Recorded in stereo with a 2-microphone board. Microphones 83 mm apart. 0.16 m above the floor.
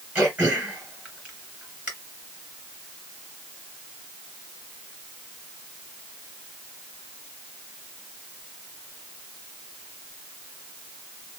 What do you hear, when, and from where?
0.1 s throat clearing: 20° right (ahead or behind), 2.5 m